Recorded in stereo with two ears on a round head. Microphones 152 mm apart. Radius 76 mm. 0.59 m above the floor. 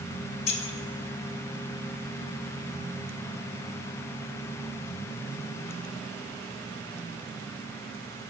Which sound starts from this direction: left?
Keys jangling, at 0.5 s.